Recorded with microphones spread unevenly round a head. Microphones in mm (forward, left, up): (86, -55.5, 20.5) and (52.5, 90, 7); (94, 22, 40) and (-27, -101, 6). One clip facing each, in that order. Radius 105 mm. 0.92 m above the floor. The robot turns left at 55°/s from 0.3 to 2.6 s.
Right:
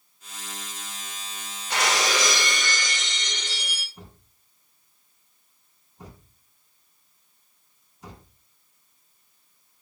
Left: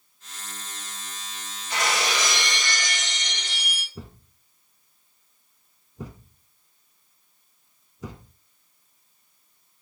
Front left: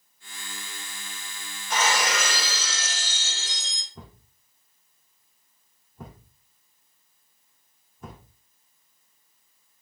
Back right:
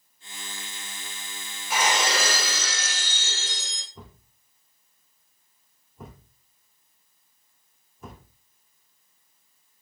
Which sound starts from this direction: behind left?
A thud, at 4.0 s.